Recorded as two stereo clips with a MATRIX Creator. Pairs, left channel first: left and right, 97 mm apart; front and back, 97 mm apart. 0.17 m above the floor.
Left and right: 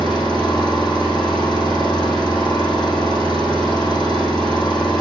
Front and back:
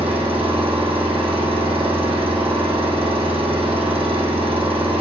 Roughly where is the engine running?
Behind.